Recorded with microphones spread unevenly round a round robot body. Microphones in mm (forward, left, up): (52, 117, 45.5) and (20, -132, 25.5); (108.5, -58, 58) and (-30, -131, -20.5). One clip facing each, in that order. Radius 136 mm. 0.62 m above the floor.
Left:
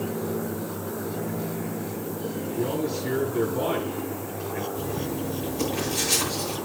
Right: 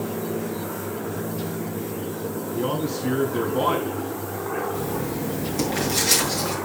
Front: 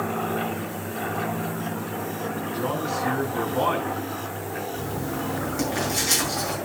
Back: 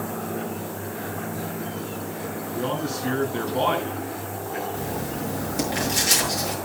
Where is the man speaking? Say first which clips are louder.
Right 1 dB, back 1 dB; 90° right, 6.5 m.